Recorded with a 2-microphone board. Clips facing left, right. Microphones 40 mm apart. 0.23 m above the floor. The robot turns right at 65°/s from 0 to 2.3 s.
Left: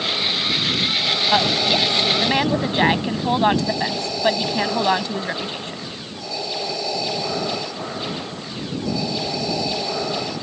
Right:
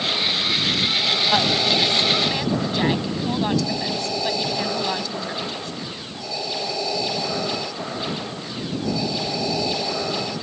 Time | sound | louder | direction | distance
1.3 | a woman speaking | left 3 dB | 10° left | ?